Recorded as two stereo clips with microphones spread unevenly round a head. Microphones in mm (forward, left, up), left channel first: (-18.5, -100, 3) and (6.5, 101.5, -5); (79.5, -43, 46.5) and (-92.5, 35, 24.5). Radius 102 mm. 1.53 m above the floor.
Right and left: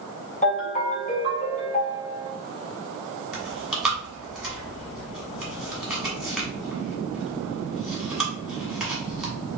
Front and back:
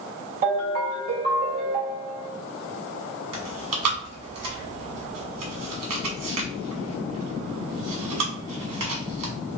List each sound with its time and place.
0.4 s a ringtone: 155° right, 2 m
3.3 s chewing: 170° left, 1.5 m